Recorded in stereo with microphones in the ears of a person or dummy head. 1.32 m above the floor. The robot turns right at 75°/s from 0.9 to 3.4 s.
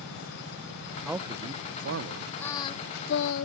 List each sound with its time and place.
1.1 s a man speaking: 170° right; by 2.3 s 75° right
2.4 s singing: 15° left; by 3.5 s 90° left